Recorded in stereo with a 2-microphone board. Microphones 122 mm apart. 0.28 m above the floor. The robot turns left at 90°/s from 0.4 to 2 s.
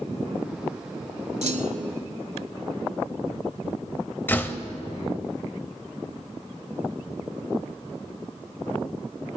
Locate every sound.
1.4 s a clunk: 65° right, 0.6 m; by 2.0 s 120° right, 0.6 m
4.3 s a door slam: 15° left (ahead or behind), 0.6 m